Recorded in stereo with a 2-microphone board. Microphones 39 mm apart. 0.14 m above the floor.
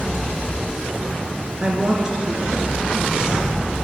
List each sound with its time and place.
1.6 s a woman speaking: 20° right (ahead or behind), 2 m